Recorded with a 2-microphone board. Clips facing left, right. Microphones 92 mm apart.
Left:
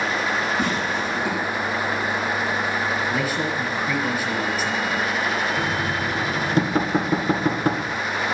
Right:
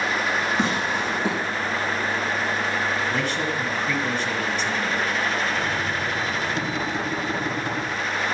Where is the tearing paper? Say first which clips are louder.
Even; 30° right (ahead or behind), 9 m.